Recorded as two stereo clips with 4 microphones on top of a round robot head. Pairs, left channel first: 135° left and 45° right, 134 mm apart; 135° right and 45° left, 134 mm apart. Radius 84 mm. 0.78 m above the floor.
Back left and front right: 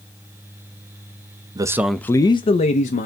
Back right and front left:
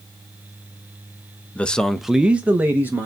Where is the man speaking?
65° right, 0.5 m; by 3.1 s 120° left, 0.9 m.